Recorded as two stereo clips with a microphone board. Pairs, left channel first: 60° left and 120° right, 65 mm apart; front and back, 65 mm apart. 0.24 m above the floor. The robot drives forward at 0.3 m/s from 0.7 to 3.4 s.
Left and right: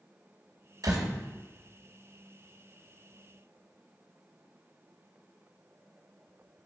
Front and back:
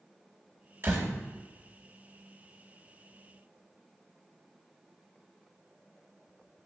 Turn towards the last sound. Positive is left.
turn(degrees=-145)